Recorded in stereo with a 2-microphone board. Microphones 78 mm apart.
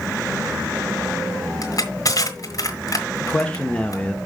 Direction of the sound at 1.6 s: 50° left (ahead or behind).